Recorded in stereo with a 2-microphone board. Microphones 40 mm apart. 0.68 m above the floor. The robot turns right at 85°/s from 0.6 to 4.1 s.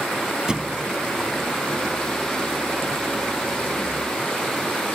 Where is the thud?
20° right (ahead or behind); by 0.9 s 45° right (ahead or behind).